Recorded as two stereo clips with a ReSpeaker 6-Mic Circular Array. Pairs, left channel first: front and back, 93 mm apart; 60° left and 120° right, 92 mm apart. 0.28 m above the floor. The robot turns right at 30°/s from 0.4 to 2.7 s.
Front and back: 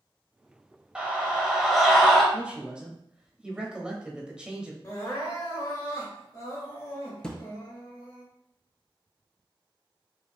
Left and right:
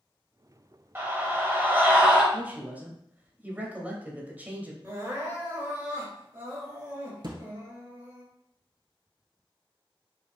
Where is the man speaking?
135° right, 0.9 m; by 4.7 s 125° right, 0.9 m.